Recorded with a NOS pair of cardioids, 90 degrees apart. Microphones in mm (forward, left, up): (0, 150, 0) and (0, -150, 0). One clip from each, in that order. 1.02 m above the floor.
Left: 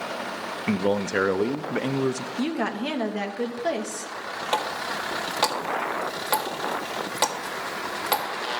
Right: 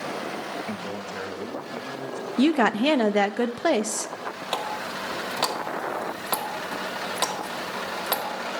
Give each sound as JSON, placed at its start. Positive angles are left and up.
{"t": 0.7, "sound": "a man speaking", "azimuth_deg": 65, "distance_m": 0.6}
{"t": 2.4, "sound": "a woman speaking", "azimuth_deg": -40, "distance_m": 0.7}
{"t": 4.5, "sound": "a running tap", "azimuth_deg": 5, "distance_m": 1.7}